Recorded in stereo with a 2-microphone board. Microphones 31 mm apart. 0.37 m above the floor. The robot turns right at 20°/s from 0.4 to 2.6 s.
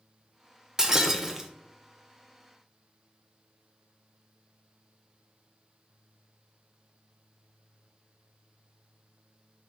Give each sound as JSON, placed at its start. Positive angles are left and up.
{"t": 0.8, "sound": "breaking glass", "side_deg": -20, "distance_m": 0.5}